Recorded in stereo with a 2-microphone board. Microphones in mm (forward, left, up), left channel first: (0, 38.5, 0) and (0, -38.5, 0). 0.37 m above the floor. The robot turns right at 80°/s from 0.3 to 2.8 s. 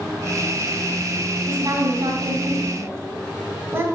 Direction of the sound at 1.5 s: 40° right (ahead or behind).